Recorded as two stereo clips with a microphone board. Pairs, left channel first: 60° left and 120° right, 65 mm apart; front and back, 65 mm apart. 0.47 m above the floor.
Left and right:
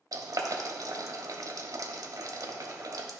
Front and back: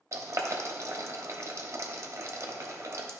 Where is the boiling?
140° right, 1.1 m.